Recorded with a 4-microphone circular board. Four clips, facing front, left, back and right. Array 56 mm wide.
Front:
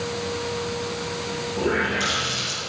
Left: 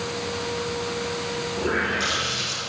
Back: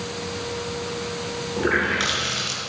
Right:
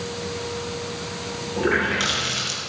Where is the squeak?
No squeak in this recording.